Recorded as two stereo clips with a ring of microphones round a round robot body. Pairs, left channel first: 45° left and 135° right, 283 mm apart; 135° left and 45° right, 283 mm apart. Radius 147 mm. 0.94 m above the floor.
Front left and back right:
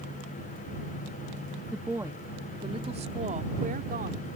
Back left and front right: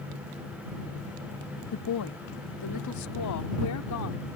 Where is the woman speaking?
135° left; by 4.3 s 165° left.